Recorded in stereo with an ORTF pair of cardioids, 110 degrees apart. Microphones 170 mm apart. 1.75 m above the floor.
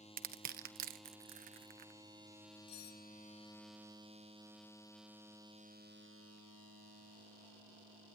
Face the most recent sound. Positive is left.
turn(degrees=70)